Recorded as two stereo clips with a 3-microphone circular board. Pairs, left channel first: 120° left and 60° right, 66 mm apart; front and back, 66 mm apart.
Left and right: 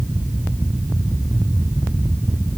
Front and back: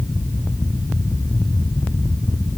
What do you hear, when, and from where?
Only background noise.